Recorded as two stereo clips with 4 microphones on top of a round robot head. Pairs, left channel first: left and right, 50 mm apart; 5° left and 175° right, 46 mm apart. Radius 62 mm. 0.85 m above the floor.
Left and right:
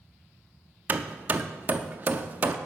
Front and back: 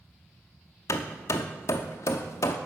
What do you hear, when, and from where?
0.9 s hammering: 35° right, 0.6 m